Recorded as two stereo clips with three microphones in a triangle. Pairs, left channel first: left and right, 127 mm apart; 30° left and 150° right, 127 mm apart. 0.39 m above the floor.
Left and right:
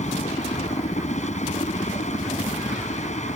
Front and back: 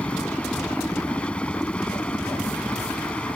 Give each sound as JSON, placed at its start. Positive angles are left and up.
{"t": 0.0, "sound": "a helicopter", "azimuth_deg": 110}